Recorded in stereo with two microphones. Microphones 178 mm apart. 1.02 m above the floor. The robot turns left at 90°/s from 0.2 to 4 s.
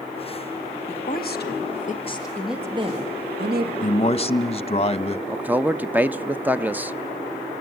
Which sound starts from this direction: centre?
A man speaking, at 5.3 s.